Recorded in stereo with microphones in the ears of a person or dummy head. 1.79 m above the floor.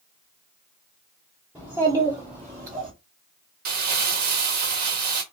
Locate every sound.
1.6 s a child speaking: 10° right (ahead or behind), 1.0 m; by 2.9 s 45° right (ahead or behind), 1.3 m
3.6 s crumpling: 55° right (ahead or behind), 1.2 m